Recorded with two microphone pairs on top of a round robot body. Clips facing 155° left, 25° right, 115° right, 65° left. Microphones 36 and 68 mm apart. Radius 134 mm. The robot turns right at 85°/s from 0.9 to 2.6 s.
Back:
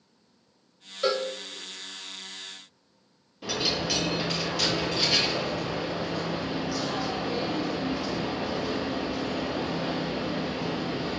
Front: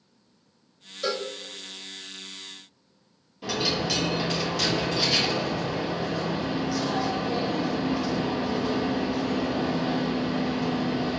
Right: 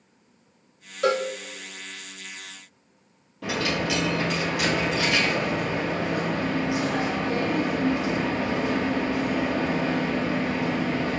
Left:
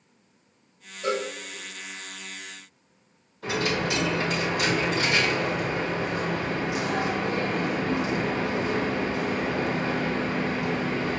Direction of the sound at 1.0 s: 140° right.